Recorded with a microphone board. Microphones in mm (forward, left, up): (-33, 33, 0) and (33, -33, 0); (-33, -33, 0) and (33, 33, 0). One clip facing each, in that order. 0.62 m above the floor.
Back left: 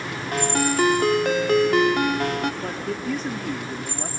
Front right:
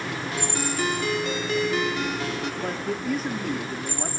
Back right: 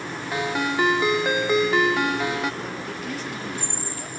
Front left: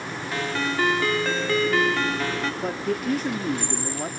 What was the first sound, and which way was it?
A ringtone, 155° left.